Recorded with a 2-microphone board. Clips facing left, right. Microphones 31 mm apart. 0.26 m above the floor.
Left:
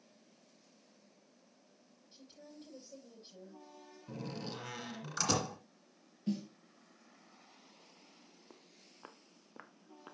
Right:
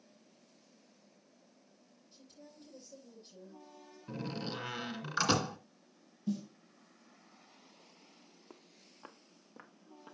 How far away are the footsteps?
About 1.1 m.